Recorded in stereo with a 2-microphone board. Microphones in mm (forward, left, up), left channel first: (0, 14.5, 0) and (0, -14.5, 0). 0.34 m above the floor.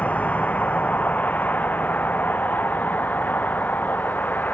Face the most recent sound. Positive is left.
turn(degrees=90)